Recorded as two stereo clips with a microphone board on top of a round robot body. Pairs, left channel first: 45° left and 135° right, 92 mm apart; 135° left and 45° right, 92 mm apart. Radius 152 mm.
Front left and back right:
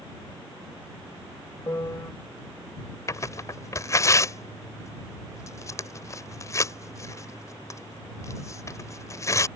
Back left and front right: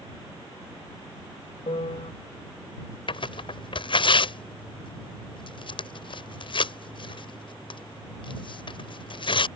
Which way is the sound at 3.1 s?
105° left.